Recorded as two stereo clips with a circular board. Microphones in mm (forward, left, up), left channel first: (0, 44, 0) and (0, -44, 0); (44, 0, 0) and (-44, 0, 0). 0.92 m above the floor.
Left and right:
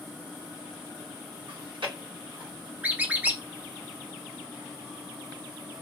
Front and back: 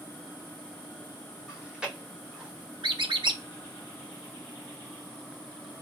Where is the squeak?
160° right, 0.6 m.